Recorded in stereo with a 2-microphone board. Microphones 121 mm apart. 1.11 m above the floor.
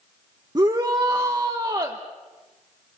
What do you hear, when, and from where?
0.6 s a shout: 35° right (ahead or behind), 1.1 m